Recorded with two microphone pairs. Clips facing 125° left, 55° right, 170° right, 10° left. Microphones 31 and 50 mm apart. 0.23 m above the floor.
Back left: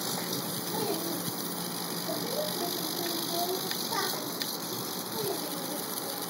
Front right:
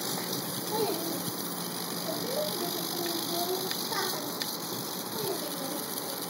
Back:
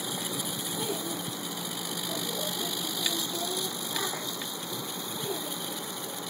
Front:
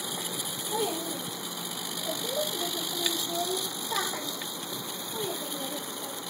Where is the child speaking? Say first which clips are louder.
Front right 2 dB, front 4 dB; 5° right, 4 m; by 6.1 s 25° left, 6.5 m.